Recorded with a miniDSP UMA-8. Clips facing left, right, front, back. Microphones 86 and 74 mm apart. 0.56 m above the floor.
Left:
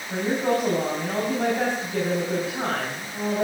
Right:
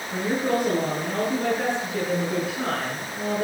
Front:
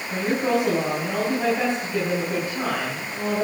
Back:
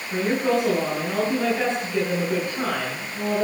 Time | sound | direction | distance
0.1 | a woman speaking | 75° left | 5 m